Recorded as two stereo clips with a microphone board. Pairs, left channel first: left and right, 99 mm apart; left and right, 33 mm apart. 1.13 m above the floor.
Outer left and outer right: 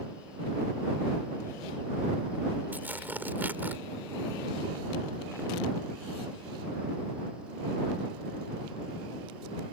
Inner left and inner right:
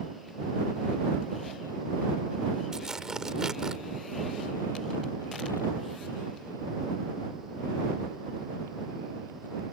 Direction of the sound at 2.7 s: 20° right (ahead or behind).